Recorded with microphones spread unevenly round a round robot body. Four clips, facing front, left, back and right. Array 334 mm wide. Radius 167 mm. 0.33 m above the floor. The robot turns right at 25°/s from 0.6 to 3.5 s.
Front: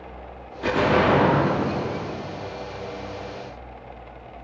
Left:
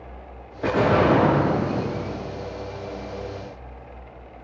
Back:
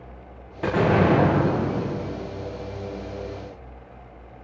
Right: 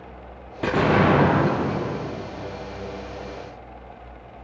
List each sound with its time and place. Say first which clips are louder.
0.6 s an explosion: even, even; 110° right, 8 m; by 2.1 s 75° right, 8 m